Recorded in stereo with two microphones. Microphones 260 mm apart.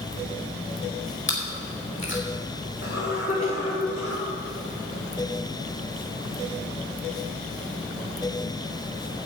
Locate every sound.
1.3 s chewing: 45° left (ahead or behind), 3 m
2.8 s a cough: 35° left (ahead or behind), 4 m